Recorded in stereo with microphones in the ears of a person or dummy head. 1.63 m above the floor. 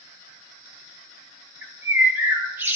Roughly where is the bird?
Centre.